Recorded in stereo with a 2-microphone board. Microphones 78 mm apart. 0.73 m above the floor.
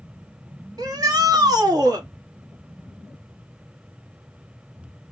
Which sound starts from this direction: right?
A shout, at 0.8 s.